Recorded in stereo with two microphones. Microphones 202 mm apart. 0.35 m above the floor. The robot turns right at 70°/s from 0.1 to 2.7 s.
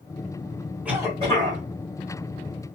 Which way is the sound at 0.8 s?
170° right.